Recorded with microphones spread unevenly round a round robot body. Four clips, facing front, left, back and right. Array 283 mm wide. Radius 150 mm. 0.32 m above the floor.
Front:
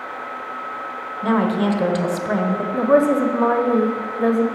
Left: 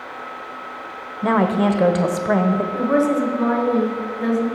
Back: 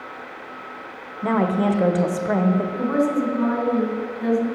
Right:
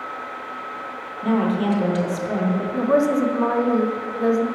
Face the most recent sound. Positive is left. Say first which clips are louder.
# right 2 dB, front 5 dB
turn(degrees=-15)